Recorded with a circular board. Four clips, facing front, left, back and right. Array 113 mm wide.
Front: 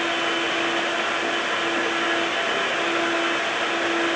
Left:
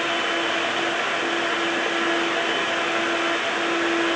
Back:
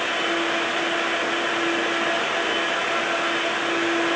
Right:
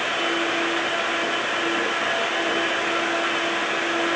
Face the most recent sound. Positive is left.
No sound to turn to.